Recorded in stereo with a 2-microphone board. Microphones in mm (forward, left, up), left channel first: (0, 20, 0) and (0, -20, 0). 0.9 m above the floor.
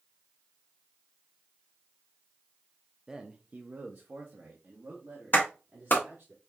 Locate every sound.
3.1 s a man speaking: 10° right (ahead or behind), 0.6 m; by 6.3 s 65° right (ahead or behind), 2 m
5.3 s a clap: 55° left (ahead or behind), 1.2 m